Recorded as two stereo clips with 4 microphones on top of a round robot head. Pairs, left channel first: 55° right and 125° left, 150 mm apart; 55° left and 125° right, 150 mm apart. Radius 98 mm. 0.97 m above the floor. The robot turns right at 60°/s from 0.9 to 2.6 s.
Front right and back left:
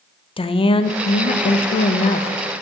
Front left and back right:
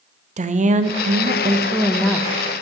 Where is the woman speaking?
100° right, 0.6 m; by 2.3 s 20° right, 0.6 m.